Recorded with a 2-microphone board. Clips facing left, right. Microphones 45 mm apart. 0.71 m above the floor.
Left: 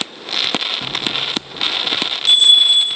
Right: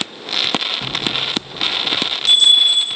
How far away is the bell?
About 2.5 m.